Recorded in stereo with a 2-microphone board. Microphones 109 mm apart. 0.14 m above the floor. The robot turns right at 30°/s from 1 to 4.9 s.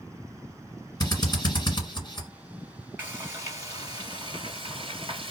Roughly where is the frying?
Behind.